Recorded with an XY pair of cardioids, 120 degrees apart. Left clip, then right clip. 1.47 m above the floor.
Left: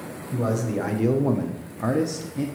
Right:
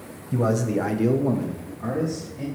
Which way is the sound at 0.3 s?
20° right.